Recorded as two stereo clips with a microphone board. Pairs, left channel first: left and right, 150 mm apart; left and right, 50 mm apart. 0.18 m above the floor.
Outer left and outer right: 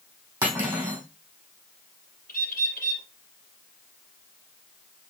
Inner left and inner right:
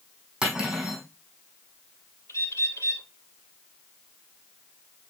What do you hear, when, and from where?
0.4 s cutlery clinking: 15° right (ahead or behind), 4.5 m
2.3 s a bird: 75° left (ahead or behind), 3 m